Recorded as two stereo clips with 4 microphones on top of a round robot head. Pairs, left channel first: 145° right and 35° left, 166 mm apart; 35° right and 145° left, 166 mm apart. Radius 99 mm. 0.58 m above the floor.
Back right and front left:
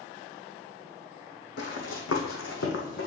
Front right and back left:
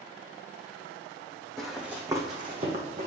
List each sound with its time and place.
1.6 s running footsteps: 125° right, 1.4 m; by 3.1 s 170° right, 1.8 m